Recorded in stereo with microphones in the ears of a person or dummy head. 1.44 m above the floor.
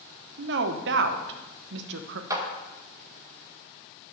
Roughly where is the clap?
Centre.